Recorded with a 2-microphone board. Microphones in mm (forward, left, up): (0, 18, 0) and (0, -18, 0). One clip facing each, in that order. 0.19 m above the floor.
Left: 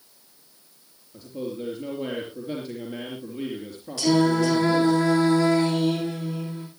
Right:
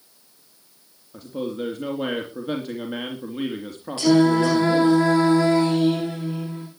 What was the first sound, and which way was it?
A man speaking, 60° right (ahead or behind).